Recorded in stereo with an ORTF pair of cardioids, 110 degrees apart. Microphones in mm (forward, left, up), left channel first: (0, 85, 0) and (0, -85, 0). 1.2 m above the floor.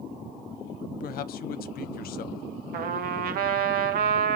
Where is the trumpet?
60° right, 0.9 m.